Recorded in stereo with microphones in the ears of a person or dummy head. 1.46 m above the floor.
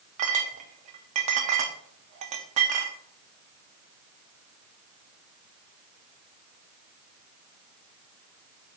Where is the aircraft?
No aircraft in this recording.